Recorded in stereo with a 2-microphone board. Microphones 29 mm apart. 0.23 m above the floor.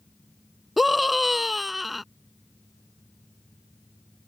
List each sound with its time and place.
0.8 s a scream: 5° right (ahead or behind)